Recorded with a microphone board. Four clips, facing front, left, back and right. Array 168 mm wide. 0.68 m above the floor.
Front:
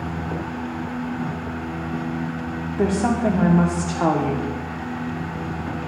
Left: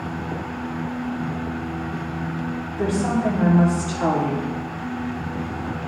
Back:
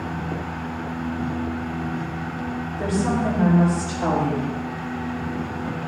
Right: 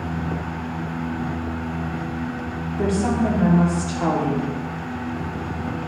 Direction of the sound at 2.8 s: 5° right.